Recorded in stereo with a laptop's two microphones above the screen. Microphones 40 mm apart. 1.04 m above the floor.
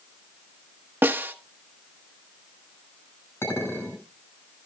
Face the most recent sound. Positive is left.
turn(degrees=90)